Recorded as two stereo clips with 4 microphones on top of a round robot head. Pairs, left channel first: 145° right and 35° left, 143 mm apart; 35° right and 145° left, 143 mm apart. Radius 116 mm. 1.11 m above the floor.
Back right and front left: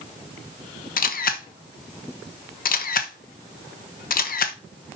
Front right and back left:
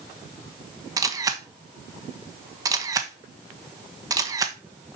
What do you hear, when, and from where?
1.0 s a camera shutter: 150° right, 1.2 m